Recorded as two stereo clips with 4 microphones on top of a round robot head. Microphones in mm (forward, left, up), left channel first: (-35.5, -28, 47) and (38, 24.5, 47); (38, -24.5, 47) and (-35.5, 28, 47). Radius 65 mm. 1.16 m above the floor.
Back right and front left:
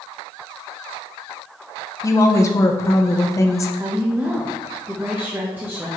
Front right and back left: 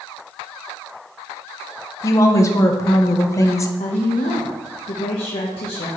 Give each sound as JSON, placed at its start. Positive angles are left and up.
{"t": 2.0, "sound": "a woman speaking", "azimuth_deg": -90, "distance_m": 0.9}
{"t": 3.8, "sound": "a woman speaking", "azimuth_deg": -35, "distance_m": 1.0}